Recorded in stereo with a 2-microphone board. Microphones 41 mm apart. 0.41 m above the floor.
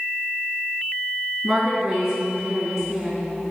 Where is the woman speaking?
20° right (ahead or behind), 4.5 m.